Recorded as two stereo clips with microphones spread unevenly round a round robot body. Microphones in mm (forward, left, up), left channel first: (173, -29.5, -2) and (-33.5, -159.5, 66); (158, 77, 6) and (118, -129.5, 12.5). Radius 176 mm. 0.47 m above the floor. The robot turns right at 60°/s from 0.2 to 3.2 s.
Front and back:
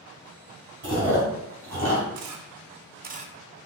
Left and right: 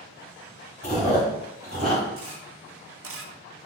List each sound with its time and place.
0.8 s chewing: 140° left, 1.8 m; by 2.0 s 145° right, 1.8 m
2.1 s a camera shutter: 140° right, 0.6 m; by 3.3 s 80° right, 0.6 m